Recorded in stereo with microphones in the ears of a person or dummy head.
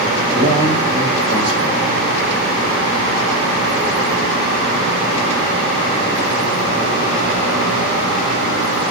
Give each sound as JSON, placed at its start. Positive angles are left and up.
{"t": 0.3, "sound": "a man speaking", "side_deg": -5, "distance_m": 2.0}